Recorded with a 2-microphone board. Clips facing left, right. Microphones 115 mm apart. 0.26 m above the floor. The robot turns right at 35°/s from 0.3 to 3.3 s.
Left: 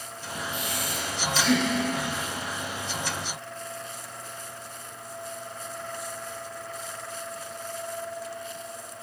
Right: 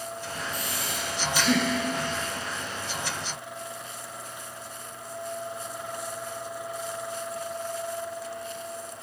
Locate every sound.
0.5 s breathing: 40° right, 4 m; by 1.7 s straight ahead, 4 m